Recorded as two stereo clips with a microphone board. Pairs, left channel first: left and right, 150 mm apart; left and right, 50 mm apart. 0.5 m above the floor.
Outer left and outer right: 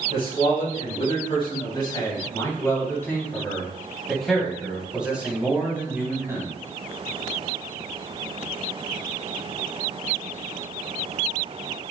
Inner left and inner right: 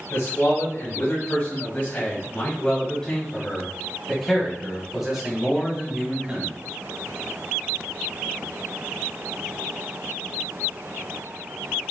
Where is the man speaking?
50° left (ahead or behind), 3.5 m; by 6.5 s 20° right (ahead or behind), 3.5 m.